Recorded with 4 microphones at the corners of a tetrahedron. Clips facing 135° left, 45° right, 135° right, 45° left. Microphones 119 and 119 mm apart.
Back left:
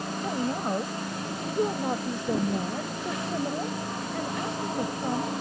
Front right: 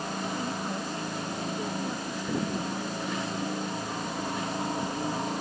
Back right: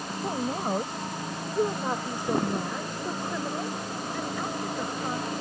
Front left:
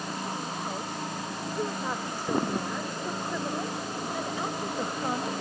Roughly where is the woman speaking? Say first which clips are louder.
Back left 7 dB, back right 5 dB; behind.